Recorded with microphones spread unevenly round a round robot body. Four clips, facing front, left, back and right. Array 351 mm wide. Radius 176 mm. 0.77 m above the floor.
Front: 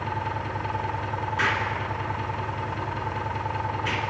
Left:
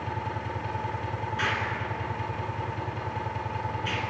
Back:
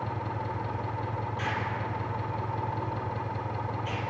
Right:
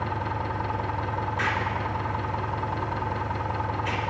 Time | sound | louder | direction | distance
0.0 | an engine running | right 4 dB, front 4 dB | 70° right | 1.3 m
1.4 | an explosion | right 1 dB, front 6 dB | straight ahead | 2.5 m